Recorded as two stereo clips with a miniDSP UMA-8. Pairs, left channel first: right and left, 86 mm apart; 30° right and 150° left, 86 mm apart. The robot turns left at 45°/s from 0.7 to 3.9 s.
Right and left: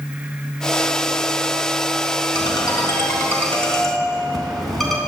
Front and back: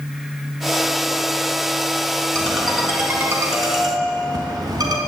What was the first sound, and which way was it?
A ringtone, 110° right.